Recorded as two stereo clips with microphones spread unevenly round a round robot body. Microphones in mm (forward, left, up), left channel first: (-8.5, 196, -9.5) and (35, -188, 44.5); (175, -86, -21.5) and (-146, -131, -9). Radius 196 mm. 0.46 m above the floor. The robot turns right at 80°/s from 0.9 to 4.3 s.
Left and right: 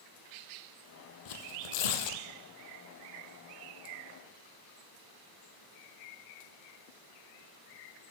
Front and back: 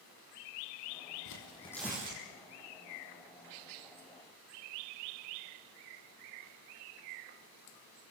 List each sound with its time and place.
1.2 s tearing paper: 55° left, 2.5 m; by 2.2 s 135° left, 2.5 m